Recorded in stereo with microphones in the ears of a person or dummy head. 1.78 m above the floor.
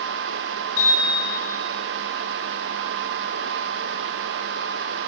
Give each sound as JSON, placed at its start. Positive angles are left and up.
{"t": 0.8, "sound": "a bicycle bell", "side_deg": 80, "distance_m": 9.5}